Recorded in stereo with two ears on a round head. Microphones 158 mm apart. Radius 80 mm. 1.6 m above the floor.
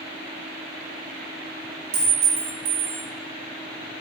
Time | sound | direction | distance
1.9 | a clink | 35° right (ahead or behind) | 1.0 m